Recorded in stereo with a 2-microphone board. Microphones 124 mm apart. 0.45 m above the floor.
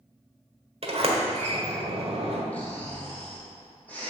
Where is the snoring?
10° left (ahead or behind), 2.5 m.